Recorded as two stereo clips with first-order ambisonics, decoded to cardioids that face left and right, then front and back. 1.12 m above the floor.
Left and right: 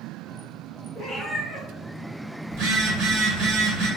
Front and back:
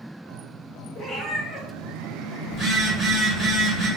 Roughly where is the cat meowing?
Ahead.